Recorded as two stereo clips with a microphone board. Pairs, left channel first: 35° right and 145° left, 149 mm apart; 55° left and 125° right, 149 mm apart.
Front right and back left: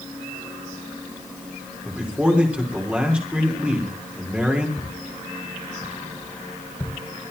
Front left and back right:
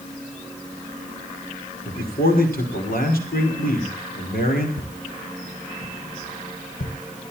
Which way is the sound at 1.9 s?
65° left.